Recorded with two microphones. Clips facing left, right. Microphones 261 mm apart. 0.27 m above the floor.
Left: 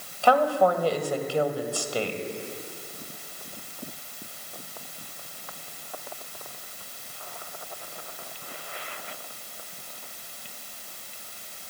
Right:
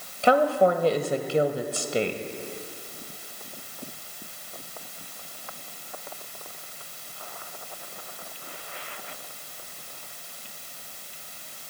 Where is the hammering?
I don't hear hammering.